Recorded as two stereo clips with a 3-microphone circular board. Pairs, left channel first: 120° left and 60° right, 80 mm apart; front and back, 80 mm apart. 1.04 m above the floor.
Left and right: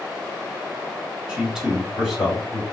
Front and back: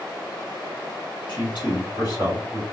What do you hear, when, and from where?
1.3 s a man speaking: 20° left, 2.5 m; by 2.6 s 30° left, 3 m